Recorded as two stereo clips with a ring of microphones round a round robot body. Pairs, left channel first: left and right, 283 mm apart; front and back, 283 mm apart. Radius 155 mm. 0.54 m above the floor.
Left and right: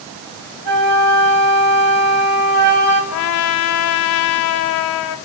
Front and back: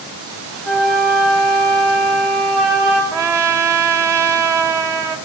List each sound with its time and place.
0.7 s a flute: 90° right, 1.9 m
3.1 s a trumpet: 100° left, 0.8 m